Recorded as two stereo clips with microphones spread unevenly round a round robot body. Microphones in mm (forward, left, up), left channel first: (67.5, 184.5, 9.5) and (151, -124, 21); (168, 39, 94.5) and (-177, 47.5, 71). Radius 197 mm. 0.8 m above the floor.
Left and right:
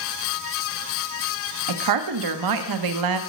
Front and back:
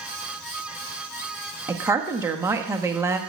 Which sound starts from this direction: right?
A woman speaking, at 1.7 s.